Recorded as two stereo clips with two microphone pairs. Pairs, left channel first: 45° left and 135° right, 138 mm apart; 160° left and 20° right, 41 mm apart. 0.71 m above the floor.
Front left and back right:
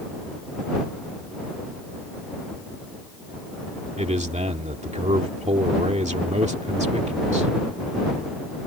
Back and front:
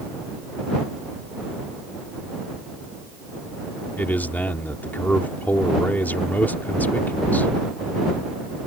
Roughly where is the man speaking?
Behind.